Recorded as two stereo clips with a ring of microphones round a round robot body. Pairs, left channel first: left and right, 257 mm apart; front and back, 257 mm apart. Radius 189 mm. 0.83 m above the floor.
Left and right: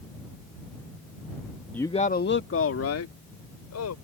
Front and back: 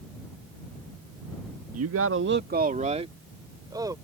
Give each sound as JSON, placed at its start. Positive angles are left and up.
{"t": 1.7, "sound": "a man speaking", "azimuth_deg": 175}